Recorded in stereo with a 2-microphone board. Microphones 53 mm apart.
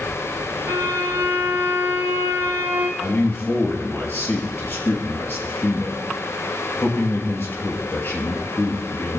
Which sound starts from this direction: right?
A violin, at 0.7 s.